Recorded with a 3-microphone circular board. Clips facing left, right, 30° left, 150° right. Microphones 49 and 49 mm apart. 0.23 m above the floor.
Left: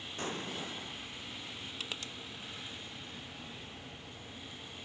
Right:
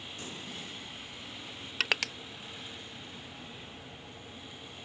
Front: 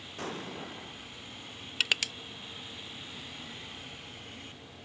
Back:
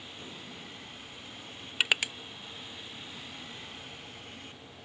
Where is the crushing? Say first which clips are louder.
Right 14 dB, back 2 dB; 75° right.